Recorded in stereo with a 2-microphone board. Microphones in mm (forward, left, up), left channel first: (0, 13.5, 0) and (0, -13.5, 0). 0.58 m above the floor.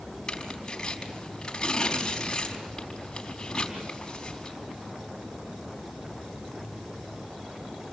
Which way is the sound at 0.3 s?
30° left (ahead or behind).